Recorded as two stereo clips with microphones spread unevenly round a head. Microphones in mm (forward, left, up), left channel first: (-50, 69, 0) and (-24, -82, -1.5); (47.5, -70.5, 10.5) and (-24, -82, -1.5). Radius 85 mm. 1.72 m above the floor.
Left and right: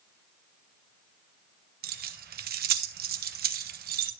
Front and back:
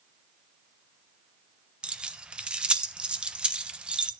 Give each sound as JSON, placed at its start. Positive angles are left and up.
{"t": 1.8, "sound": "keys jangling", "azimuth_deg": -90, "distance_m": 1.2}